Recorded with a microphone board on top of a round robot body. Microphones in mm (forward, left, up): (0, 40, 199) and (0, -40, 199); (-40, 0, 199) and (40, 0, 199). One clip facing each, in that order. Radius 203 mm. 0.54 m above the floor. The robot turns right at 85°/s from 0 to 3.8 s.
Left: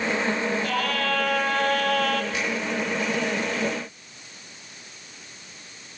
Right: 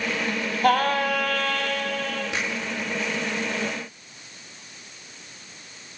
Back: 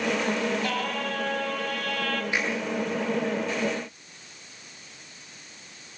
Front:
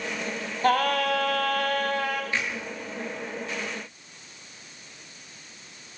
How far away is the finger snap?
About 10 m.